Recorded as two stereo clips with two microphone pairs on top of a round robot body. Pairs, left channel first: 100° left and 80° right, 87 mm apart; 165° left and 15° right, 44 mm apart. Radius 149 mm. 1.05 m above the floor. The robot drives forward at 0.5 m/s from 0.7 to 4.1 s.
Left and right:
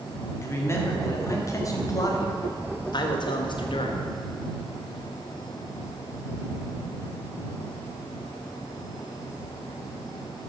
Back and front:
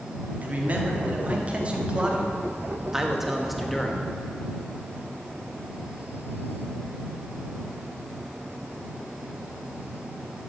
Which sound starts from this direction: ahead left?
A man speaking, at 0.4 s.